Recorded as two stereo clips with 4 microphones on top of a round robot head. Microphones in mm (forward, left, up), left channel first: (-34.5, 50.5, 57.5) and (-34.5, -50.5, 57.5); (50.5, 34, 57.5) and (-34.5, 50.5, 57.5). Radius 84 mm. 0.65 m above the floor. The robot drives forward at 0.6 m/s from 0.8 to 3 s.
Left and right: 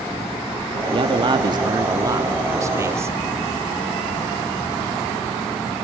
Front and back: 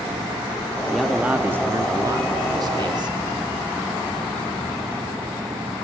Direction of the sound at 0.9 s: 100° right.